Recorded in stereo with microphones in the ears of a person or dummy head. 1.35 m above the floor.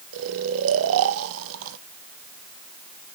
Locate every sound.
0.1 s snoring: 75° right (ahead or behind), 0.9 m